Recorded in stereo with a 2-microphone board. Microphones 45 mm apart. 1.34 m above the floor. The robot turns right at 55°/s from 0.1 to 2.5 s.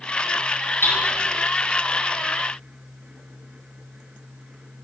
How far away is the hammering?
About 9 m.